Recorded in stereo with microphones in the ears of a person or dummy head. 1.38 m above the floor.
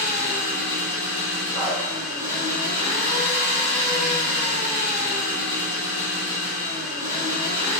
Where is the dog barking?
10° right (ahead or behind), 1.6 m.